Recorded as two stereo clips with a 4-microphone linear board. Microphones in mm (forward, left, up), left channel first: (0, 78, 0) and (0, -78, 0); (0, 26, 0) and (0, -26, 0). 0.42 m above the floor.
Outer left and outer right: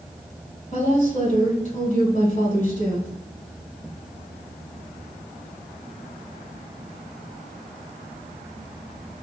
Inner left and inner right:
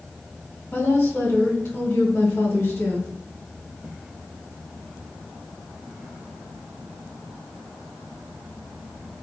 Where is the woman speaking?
55° left (ahead or behind), 2 m.